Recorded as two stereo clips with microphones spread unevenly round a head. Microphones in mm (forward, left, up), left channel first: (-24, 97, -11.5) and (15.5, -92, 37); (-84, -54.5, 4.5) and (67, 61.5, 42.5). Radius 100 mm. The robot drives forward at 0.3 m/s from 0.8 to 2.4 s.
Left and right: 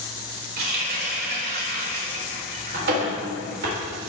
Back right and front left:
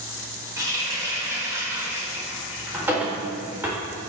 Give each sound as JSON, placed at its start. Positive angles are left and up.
{"t": 0.6, "sound": "a running tap", "azimuth_deg": -35, "distance_m": 3.5}